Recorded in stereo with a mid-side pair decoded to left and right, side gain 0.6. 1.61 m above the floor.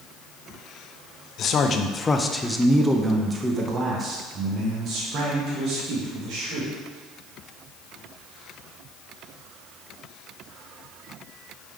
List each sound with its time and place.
1.4 s a man speaking: 50° left, 0.8 m; by 6.7 s 55° right, 2.5 m